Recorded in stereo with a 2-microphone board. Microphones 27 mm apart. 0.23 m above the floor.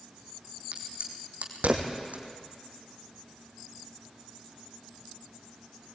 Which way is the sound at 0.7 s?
70° right (ahead or behind).